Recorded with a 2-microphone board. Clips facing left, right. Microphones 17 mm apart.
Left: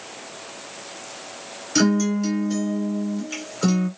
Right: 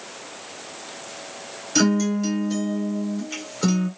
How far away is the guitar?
About 2.5 m.